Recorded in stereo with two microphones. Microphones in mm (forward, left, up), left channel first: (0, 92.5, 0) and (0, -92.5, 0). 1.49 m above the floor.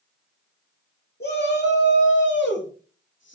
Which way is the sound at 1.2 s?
60° left (ahead or behind).